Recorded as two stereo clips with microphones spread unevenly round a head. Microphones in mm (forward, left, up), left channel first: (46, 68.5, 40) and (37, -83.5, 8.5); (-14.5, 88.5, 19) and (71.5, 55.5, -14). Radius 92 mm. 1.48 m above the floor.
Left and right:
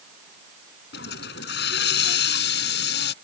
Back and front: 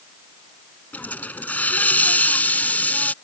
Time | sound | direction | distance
0.9 | a hiss | 90° left | ?